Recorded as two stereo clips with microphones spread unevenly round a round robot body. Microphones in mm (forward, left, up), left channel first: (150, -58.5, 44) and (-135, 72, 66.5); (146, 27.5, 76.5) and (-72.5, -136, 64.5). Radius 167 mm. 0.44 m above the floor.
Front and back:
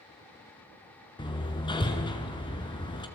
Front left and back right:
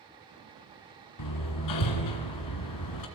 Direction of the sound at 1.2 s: 50° left.